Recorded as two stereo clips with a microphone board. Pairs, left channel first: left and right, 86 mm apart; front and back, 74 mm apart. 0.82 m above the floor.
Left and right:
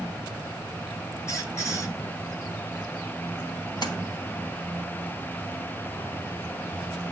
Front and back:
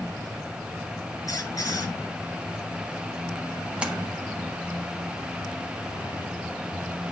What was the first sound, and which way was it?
A squeak, 35° left.